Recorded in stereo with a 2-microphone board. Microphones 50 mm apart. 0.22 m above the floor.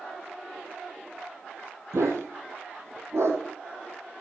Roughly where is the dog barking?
Right.